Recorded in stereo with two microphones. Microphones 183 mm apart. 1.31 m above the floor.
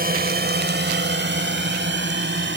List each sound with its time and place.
0.0 s a drone: 55° right (ahead or behind); by 2.6 s 85° right